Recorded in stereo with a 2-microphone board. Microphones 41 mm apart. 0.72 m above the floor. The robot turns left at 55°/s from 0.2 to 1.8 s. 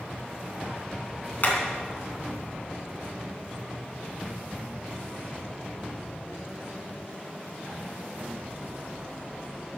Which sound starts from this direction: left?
Hammering, at 1.4 s.